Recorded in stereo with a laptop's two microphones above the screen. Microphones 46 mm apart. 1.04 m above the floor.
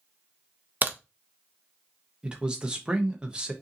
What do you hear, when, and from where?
0.8 s a crack: 40° right (ahead or behind), 0.5 m
2.2 s a man speaking: 20° right (ahead or behind), 0.8 m